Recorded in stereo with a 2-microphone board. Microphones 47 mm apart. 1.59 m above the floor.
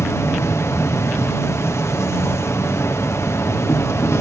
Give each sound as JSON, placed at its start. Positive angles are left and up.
{"t": 0.0, "sound": "an insect", "side_deg": 70}